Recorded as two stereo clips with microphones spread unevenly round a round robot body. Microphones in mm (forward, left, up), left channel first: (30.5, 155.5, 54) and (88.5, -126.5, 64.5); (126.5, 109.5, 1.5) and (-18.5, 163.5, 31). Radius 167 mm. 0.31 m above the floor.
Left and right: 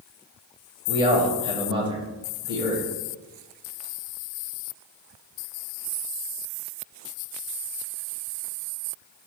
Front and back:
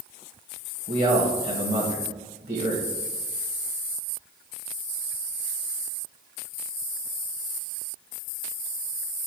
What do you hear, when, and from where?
0.9 s a man speaking: 150° right, 1.3 m